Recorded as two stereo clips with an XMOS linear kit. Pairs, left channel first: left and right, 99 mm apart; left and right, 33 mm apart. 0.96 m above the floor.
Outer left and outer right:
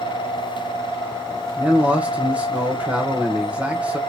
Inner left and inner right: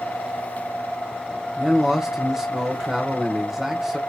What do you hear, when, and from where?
1.6 s a man speaking: 15° right (ahead or behind), 0.9 m